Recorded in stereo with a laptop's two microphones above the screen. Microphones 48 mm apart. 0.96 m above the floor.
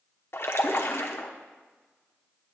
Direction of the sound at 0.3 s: 60° left (ahead or behind).